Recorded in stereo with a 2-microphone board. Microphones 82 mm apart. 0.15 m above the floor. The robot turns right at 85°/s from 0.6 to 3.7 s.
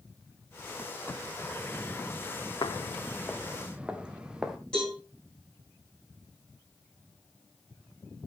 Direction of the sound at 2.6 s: 60° left (ahead or behind).